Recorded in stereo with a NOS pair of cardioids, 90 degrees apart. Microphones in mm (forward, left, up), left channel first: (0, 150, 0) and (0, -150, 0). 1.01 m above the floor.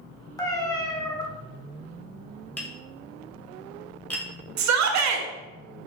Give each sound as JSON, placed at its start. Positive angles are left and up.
{"t": 0.4, "sound": "a cat meowing", "azimuth_deg": 10, "distance_m": 0.7}
{"t": 2.6, "sound": "tapping", "azimuth_deg": 5, "distance_m": 0.8}
{"t": 4.6, "sound": "a shout", "azimuth_deg": -60, "distance_m": 0.6}